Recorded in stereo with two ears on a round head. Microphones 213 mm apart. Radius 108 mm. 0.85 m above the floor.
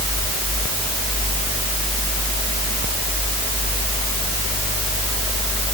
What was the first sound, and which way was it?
Only background noise.